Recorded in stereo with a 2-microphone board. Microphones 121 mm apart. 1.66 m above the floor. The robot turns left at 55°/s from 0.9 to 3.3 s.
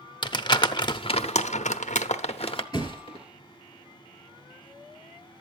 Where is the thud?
35° left (ahead or behind), 2.5 m; by 3.2 s 50° left (ahead or behind), 2.5 m.